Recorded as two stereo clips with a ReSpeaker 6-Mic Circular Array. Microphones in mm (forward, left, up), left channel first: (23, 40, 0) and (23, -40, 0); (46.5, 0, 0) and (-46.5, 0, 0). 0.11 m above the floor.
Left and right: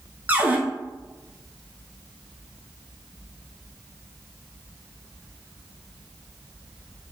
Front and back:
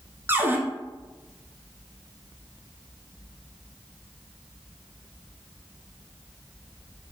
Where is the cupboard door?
140° right, 0.7 m.